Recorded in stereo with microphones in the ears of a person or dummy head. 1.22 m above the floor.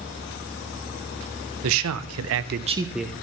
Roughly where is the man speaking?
Right.